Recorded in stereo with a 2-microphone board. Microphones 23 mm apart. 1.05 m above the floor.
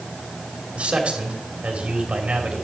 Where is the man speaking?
70° right (ahead or behind), 2.5 m.